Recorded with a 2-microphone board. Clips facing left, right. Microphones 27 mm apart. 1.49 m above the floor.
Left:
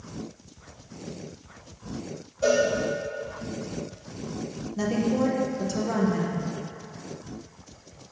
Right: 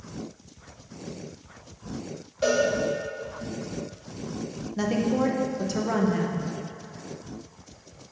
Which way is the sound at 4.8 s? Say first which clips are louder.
Even; 25° right (ahead or behind).